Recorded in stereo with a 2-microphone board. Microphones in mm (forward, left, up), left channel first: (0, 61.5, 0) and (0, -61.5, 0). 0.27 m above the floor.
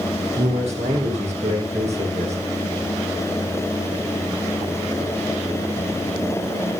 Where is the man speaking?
65° right (ahead or behind), 8 m.